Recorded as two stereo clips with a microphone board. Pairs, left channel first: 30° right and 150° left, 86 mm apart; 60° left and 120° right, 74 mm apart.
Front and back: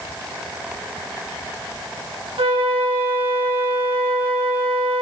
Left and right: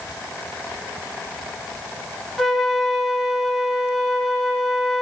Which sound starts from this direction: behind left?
A flute, at 2.4 s.